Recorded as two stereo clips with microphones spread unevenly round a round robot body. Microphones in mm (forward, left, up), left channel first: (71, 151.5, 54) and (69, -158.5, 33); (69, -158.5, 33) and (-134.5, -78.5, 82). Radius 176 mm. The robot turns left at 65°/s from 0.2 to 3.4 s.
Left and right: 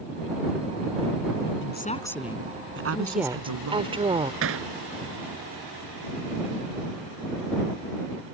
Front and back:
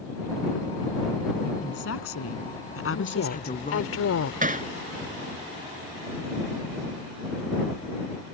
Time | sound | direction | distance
1.6 | a woman speaking | 40° left | ?
2.9 | a woman speaking | 15° left | ?
4.4 | hammering | 145° right | ?